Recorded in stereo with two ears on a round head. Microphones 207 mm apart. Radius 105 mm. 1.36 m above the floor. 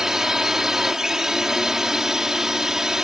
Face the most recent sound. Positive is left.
turn(degrees=-5)  # may be behind; listen again after turning